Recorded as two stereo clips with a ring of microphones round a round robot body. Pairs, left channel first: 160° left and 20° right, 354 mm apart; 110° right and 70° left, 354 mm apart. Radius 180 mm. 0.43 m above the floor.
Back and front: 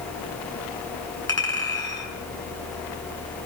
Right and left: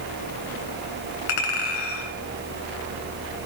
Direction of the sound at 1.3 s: 125° right.